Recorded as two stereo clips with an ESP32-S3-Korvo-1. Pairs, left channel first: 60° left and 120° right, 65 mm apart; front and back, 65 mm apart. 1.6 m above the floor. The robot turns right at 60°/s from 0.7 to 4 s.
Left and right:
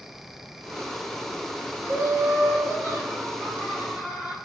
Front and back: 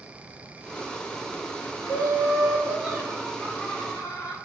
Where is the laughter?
165° right, 1.8 m; by 4.4 s 35° right, 1.8 m.